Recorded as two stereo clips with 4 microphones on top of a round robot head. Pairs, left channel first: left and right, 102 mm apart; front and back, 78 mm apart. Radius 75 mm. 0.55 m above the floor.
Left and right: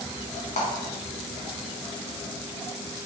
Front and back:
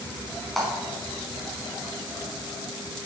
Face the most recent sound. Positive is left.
turn(degrees=90)